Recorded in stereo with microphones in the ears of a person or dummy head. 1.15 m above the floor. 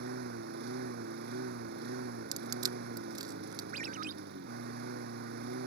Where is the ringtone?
45° right (ahead or behind).